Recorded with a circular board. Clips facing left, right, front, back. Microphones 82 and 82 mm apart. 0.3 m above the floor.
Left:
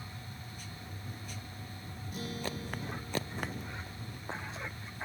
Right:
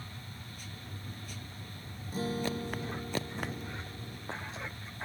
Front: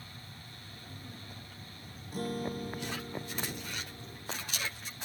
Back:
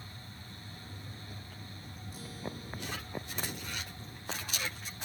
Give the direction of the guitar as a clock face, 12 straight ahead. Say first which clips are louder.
Right 6 dB, front 9 dB; 1 o'clock.